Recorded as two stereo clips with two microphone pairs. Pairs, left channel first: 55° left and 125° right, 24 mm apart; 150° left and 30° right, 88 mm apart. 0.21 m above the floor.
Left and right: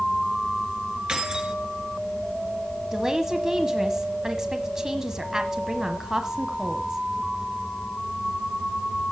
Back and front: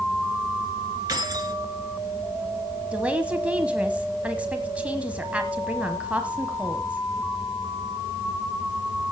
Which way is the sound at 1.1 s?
75° right.